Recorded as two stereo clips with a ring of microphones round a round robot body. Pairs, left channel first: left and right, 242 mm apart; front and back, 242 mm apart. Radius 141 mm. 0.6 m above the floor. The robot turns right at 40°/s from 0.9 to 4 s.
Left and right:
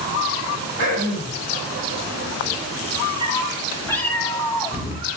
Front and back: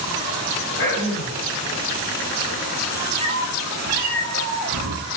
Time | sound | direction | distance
0.8 | throat clearing | 45° right | 5 m
3.2 | a cat meowing | 140° left | 3 m